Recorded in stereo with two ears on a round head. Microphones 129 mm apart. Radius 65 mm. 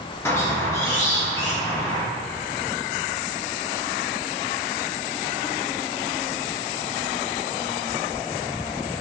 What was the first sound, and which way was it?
A squeak, 20° left (ahead or behind).